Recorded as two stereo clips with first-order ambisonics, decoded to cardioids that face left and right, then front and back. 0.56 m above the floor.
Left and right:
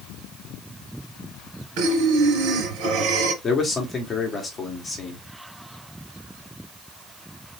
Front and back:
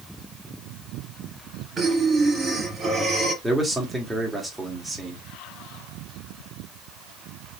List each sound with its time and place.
1.8 s breathing: 105° right, 2.5 m
3.4 s a man speaking: 95° left, 1.2 m